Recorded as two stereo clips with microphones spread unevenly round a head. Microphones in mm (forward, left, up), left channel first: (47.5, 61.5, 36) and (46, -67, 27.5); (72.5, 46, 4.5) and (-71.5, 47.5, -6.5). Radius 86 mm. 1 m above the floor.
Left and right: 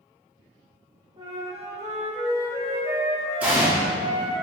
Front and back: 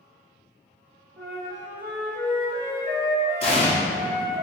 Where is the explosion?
15° right, 0.7 m.